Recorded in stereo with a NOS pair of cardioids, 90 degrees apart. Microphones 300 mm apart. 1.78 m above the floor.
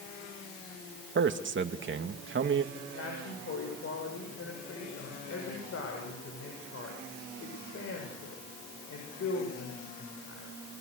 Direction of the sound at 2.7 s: 50° left.